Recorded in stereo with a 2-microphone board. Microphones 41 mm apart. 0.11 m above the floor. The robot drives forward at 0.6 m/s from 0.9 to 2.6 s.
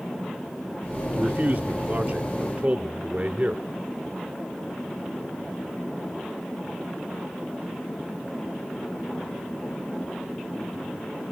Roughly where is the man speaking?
Right.